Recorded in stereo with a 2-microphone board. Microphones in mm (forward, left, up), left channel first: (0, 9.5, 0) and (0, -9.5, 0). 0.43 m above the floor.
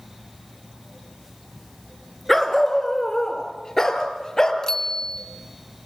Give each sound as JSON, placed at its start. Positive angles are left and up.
{"t": 2.3, "sound": "a dog barking", "side_deg": 5, "distance_m": 2.0}
{"t": 4.6, "sound": "a bicycle bell", "side_deg": 25, "distance_m": 2.0}